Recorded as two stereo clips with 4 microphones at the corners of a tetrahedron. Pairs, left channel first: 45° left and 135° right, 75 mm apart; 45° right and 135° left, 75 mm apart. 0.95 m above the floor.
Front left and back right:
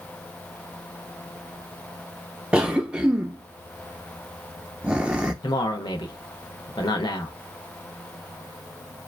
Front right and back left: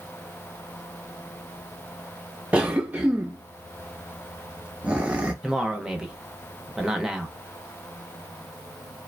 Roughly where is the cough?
Behind.